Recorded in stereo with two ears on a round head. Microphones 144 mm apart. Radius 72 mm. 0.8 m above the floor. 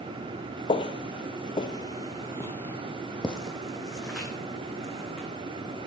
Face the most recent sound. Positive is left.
turn(degrees=-5)  # may be behind; listen again after turning